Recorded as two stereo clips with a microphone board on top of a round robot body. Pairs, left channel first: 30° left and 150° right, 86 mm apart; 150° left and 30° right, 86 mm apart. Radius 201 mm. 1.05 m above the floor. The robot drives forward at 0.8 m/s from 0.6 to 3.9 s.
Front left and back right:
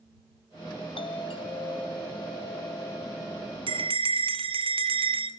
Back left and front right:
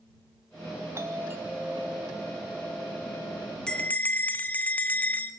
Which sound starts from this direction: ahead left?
A doorbell, at 0.9 s.